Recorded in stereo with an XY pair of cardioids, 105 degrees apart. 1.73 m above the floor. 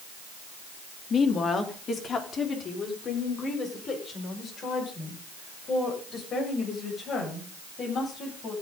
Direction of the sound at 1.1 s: 45° left.